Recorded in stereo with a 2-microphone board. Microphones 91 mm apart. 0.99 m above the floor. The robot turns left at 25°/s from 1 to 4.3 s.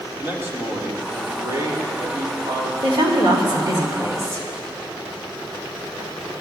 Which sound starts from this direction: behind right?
A woman speaking, at 2.8 s.